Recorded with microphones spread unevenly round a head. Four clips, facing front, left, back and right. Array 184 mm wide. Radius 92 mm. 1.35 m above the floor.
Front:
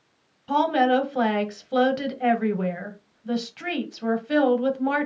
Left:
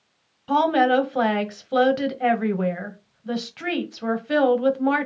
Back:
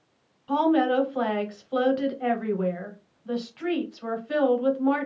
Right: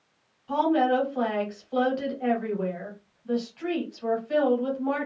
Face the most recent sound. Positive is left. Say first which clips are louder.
# left 4 dB, front 1 dB
turn(degrees=60)